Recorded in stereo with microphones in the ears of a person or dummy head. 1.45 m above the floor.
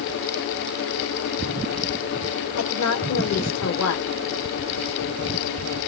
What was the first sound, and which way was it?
A woman speaking, 80° left.